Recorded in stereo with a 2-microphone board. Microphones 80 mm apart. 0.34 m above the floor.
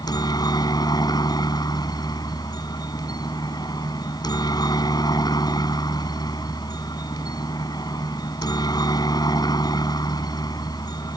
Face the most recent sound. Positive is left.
turn(degrees=55)  # may be behind; listen again after turning